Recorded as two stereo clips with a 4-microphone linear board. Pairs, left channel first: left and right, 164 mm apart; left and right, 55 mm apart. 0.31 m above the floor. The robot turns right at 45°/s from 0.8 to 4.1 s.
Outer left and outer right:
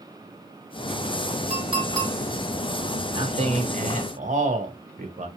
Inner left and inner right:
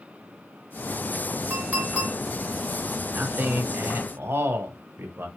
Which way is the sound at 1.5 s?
40° right (ahead or behind).